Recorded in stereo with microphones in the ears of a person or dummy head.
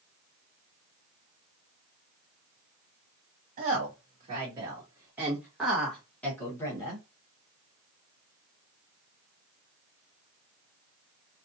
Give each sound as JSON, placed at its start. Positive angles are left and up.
{"t": 3.6, "sound": "a woman speaking", "side_deg": -45, "distance_m": 1.6}